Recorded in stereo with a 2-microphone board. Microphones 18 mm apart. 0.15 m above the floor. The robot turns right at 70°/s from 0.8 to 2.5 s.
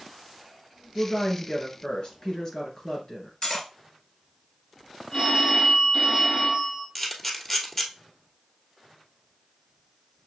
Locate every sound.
0.9 s a woman speaking: 25° left, 3 m; by 3.3 s 135° left, 3 m
3.4 s cutlery clinking: 40° left (ahead or behind), 1.6 m
5.1 s a phone ringing: 65° left (ahead or behind), 2.5 m
7.0 s a camera shutter: 20° left (ahead or behind), 1.1 m